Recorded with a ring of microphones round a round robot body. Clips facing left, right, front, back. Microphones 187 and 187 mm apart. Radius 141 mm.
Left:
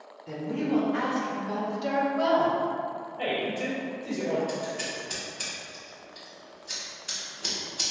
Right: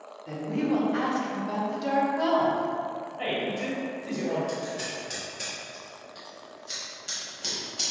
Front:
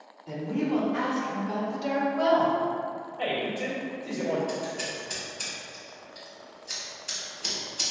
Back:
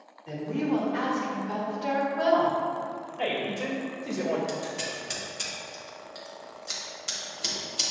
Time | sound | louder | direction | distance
0.3 | a woman speaking | right 1 dB, even | 105° right | 2.0 m
3.2 | a man speaking | left 1 dB, even | 160° left | 1.3 m
4.5 | scissors | even, front 1 dB | 160° right | 1.0 m